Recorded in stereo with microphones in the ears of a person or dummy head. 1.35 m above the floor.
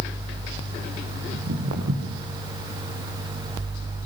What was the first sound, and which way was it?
Footsteps, 45° right (ahead or behind).